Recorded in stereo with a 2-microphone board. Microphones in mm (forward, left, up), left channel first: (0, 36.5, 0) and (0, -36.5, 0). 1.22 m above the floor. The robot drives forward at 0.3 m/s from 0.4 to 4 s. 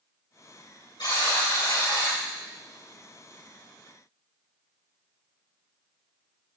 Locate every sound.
1.0 s a buzzer: 85° left, 4.5 m; by 2.2 s 80° left, 4.5 m